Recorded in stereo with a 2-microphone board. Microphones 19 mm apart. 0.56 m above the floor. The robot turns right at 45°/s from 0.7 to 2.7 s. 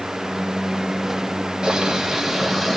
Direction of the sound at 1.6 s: 50° right.